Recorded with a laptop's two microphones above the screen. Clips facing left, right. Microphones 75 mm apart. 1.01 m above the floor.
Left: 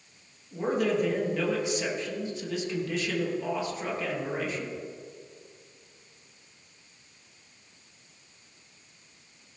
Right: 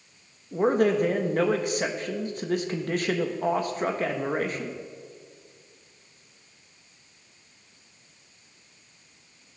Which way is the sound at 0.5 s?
50° right (ahead or behind).